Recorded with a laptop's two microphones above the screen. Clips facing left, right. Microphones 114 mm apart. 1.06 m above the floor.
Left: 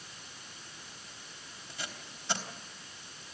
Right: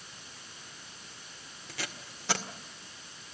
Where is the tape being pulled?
80° right, 1.8 m.